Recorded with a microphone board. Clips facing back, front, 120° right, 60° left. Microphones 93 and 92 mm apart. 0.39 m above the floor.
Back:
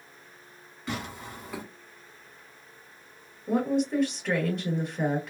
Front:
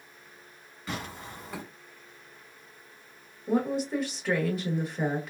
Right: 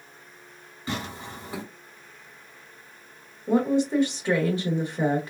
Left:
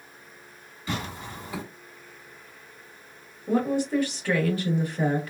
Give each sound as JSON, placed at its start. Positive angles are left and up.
{"t": 0.9, "sound": "tearing paper", "azimuth_deg": -85, "distance_m": 1.8}
{"t": 3.5, "sound": "a woman speaking", "azimuth_deg": -80, "distance_m": 0.9}